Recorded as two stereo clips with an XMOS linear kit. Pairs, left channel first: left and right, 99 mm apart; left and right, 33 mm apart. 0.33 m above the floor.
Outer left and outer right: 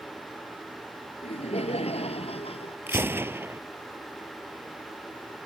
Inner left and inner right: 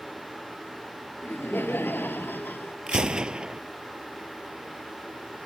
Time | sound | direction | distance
1.2 | laughter | 80° left | ?
2.9 | a gunshot | 20° right (ahead or behind) | ?